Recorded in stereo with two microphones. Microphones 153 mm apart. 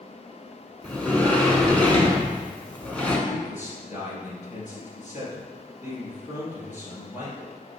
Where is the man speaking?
55° left (ahead or behind), 3 m.